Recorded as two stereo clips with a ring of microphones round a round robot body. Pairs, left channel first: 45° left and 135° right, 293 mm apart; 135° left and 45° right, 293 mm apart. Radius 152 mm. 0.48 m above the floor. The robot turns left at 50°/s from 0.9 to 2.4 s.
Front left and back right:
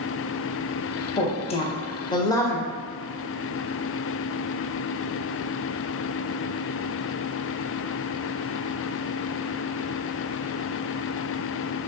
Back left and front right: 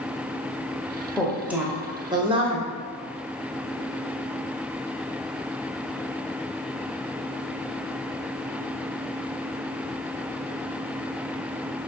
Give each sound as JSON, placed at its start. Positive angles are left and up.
{"t": 1.2, "sound": "a woman speaking", "azimuth_deg": 50, "distance_m": 0.8}